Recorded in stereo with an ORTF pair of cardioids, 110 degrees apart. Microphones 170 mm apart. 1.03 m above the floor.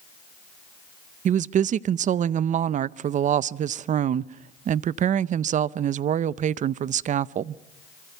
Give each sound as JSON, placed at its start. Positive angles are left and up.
{"t": 1.2, "sound": "a woman speaking", "azimuth_deg": -50, "distance_m": 0.6}